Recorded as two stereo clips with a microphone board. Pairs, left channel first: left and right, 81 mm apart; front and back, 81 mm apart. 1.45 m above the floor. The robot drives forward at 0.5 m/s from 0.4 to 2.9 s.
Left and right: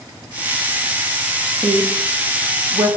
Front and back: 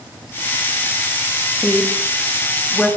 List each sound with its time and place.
1.6 s a woman speaking: 75° right, 2.5 m; by 2.9 s 90° right, 2.5 m